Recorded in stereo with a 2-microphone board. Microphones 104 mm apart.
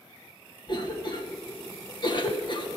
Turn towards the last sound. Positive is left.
turn(degrees=50)  # may be behind; listen again after turning